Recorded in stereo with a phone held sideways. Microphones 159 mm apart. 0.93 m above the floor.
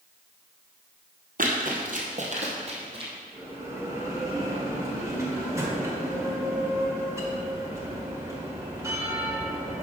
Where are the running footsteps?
60° right (ahead or behind), 1.8 m; by 3.1 s 35° right (ahead or behind), 2.5 m.